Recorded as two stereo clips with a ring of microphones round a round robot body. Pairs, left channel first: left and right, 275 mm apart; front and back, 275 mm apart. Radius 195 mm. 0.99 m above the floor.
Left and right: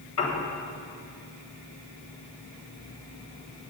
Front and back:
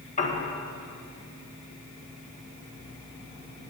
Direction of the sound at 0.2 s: 60° left.